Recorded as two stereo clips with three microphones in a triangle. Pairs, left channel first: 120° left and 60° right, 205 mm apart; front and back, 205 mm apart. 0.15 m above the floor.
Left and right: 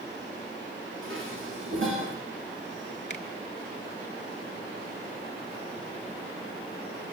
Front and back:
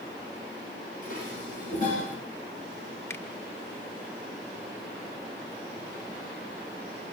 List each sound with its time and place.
1.0 s dishes clattering: 45° right, 9 m
3.1 s a finger snap: 75° left, 2.5 m